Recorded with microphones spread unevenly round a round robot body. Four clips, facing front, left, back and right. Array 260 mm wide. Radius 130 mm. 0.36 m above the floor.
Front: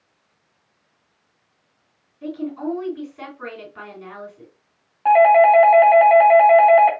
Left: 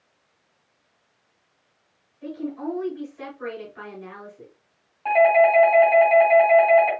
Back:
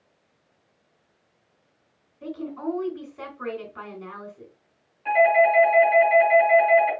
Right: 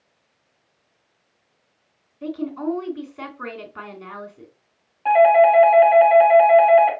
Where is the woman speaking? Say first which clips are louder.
Right 4 dB, front 4 dB; 90° right, 3 m.